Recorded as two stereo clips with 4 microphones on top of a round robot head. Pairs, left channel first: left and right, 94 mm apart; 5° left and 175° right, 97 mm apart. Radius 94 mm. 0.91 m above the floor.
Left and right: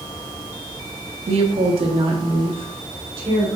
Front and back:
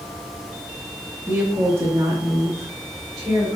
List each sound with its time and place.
1.3 s a woman speaking: 95° right, 1.0 m; by 3.5 s 115° right, 3 m